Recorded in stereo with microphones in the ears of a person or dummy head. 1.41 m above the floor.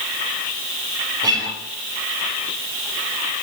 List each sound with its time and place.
1.2 s a guitar: 20° right (ahead or behind), 6 m